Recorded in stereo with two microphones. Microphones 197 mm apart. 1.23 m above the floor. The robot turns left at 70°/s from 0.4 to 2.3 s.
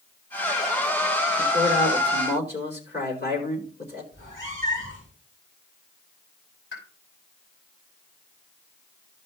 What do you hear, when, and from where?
1.4 s a man speaking: 120° left, 3.5 m; by 4.0 s 55° left, 3.5 m
4.1 s a cat meowing: 85° left, 7 m
6.7 s a pop: 70° left (ahead or behind), 5 m